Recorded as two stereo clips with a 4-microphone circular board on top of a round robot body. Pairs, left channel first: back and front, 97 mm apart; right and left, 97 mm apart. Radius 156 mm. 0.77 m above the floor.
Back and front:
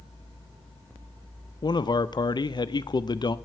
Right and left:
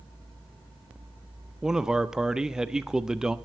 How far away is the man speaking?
About 0.7 m.